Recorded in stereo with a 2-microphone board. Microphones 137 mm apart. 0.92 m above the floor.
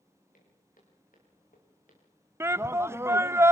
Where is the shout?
20° right (ahead or behind), 0.5 m.